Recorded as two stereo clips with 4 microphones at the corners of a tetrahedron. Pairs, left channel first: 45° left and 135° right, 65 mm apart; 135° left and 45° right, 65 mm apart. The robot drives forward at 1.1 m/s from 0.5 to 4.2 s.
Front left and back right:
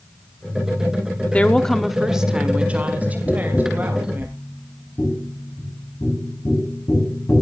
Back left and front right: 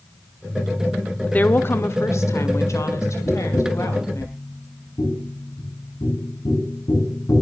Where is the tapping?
90° left, 5 m; by 7.4 s 105° left, 5 m.